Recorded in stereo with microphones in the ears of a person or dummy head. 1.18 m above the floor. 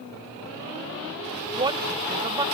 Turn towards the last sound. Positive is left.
turn(degrees=-25)  # may be behind; listen again after turning